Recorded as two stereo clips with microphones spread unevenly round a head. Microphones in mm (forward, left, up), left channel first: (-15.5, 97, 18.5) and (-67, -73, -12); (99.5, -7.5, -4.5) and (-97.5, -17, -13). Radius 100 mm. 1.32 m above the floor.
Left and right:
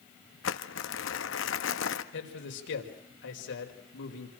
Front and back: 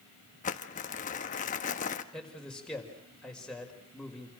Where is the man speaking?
90° left, 5.5 m.